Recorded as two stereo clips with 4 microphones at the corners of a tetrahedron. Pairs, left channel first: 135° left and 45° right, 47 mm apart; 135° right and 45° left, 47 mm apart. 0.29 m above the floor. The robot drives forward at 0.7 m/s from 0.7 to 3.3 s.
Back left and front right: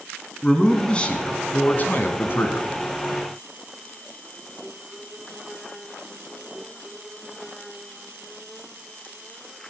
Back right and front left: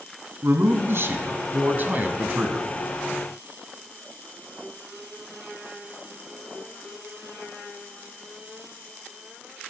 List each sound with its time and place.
0.4 s a man speaking: 65° left, 2.5 m; by 2.7 s 105° left, 2 m